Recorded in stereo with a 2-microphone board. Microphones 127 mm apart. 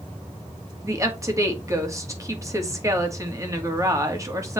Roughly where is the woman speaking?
Right.